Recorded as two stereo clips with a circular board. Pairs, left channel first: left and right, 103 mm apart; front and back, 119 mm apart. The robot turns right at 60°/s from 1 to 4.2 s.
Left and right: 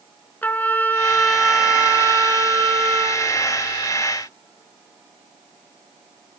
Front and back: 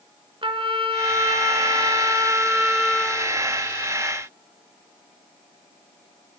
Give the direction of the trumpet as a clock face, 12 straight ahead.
7 o'clock.